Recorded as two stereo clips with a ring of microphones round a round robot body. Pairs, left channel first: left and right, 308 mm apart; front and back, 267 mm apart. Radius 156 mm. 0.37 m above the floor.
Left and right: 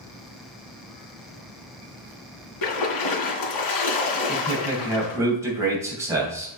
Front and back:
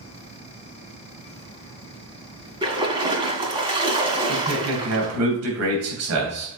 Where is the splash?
105° left, 2.0 m.